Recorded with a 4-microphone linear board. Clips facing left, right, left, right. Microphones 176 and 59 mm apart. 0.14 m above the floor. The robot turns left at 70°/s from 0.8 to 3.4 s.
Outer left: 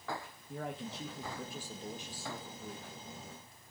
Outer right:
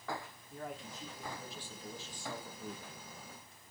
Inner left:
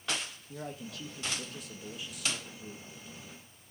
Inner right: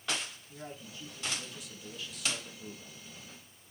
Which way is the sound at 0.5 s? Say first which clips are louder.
Outer left 4 dB, inner left 4 dB; 100° left.